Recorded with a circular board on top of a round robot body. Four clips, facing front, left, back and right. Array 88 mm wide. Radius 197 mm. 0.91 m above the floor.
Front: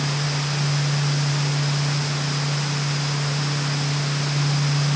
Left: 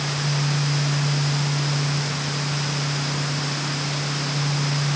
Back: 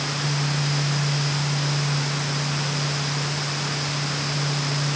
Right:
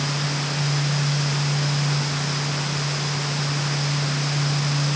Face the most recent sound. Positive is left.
No sound to turn to.